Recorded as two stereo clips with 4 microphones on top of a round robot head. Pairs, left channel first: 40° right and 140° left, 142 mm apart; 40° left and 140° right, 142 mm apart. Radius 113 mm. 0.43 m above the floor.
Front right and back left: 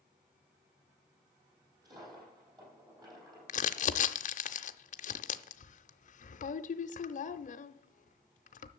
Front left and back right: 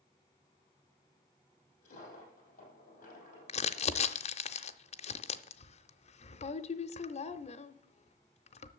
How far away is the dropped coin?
About 5 m.